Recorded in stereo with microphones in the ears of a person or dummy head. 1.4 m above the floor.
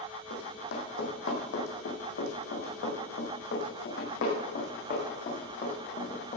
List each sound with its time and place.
0.3 s running footsteps: 70° left (ahead or behind), 3.5 m; by 6.4 s 40° left (ahead or behind), 4.5 m